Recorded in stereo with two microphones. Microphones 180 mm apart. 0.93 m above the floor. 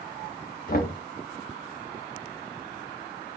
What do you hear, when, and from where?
0.7 s knocking: 50° left (ahead or behind), 1.0 m